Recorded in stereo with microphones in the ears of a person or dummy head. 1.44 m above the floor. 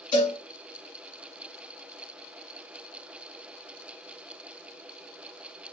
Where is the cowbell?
30° left (ahead or behind), 1.9 m.